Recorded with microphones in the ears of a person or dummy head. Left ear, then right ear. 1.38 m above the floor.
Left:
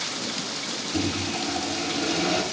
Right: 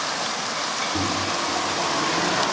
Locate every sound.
0.9 s a microwave: 40° left (ahead or behind), 6.5 m